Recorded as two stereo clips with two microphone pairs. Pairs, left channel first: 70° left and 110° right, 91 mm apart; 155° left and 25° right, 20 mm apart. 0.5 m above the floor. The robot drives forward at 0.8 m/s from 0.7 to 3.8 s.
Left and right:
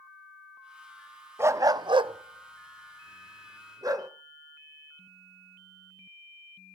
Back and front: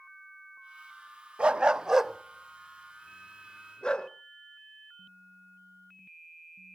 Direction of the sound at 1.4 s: 50° right.